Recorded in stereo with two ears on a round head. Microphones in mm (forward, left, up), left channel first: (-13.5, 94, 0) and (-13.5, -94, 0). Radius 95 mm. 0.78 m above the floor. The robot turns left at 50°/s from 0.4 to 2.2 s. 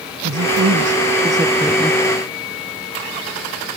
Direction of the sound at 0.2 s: 115° right.